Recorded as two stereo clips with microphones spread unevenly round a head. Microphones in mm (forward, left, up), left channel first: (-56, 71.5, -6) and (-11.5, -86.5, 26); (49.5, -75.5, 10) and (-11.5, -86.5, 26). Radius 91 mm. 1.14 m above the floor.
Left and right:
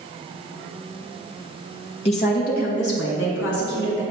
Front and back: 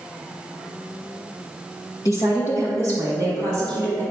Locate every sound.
2.0 s a woman speaking: 50° left, 1.1 m; by 4.0 s 95° left, 2.5 m